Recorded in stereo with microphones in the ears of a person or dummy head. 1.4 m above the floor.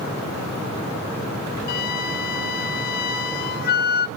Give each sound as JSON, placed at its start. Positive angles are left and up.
{"t": 1.7, "sound": "a flute", "side_deg": 50, "distance_m": 0.8}